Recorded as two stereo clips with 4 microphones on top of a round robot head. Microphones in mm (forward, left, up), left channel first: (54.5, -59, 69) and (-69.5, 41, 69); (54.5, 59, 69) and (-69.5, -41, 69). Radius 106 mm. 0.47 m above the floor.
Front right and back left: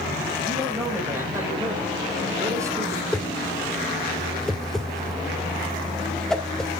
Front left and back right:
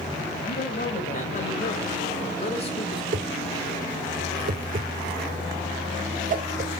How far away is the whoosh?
About 1.6 m.